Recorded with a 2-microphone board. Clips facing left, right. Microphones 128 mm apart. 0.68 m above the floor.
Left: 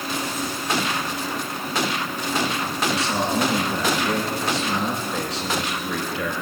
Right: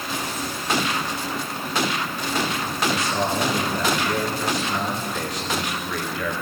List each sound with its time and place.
2.9 s a man speaking: 70° left (ahead or behind), 7.5 m